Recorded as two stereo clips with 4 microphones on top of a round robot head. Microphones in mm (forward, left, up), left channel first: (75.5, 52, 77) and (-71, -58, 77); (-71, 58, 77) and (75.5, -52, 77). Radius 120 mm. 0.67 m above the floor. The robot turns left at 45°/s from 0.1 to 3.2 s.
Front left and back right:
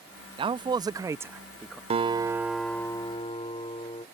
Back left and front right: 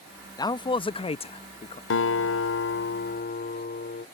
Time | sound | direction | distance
0.4 | a man speaking | 170° right | ?
1.9 | a guitar | 160° left | ?